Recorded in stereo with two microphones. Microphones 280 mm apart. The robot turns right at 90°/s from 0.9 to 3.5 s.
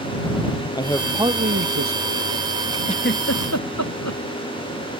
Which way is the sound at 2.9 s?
15° left (ahead or behind).